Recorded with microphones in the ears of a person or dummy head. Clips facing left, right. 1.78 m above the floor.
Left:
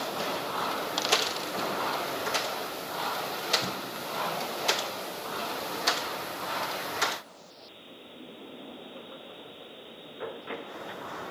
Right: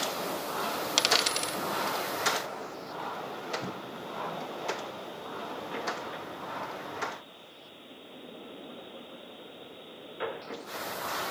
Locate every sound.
1.0 s a dropped coin: 45° right (ahead or behind), 1.6 m